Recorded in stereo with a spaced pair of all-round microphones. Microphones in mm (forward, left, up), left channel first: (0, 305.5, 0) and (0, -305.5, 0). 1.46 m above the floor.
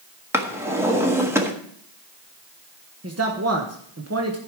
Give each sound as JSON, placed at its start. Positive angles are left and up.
{"t": 0.3, "sound": "a drawer", "side_deg": -5, "distance_m": 1.4}
{"t": 3.0, "sound": "a man speaking", "side_deg": -25, "distance_m": 1.3}